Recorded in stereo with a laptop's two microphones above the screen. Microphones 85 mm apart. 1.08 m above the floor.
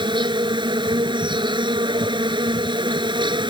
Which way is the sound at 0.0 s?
75° right (ahead or behind).